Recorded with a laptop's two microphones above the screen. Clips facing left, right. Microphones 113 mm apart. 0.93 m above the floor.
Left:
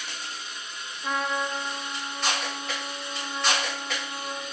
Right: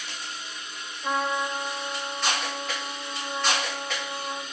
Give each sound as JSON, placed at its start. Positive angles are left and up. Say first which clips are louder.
{"t": 1.0, "sound": "a trumpet", "louder": "right 1 dB", "side_deg": -10, "distance_m": 2.0}